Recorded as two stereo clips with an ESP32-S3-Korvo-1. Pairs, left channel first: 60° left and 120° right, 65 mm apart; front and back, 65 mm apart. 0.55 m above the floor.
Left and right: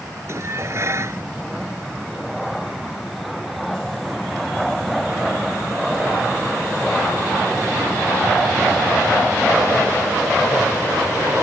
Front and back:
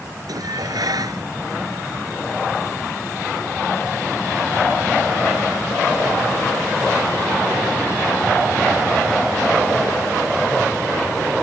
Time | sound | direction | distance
0.3 | dishes clattering | 165° right | ?